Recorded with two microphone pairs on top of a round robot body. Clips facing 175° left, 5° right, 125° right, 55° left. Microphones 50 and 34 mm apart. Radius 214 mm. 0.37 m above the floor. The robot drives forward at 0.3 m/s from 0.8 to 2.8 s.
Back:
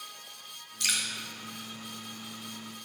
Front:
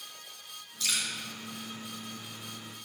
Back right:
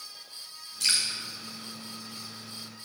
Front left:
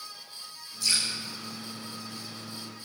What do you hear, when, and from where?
0.8 s dripping: 155° right, 3 m